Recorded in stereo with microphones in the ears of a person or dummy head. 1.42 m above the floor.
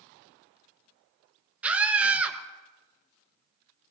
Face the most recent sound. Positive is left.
turn(degrees=-5)  # may be behind; listen again after turning